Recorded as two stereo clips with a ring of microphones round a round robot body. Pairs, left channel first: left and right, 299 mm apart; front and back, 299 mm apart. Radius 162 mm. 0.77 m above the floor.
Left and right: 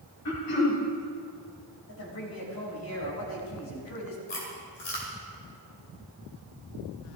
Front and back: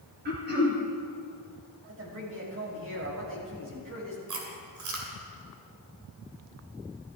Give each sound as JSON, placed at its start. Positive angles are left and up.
{"t": 0.2, "sound": "throat clearing", "azimuth_deg": 125, "distance_m": 3.0}
{"t": 1.9, "sound": "a man speaking", "azimuth_deg": 135, "distance_m": 5.0}
{"t": 4.3, "sound": "chewing", "azimuth_deg": 150, "distance_m": 2.5}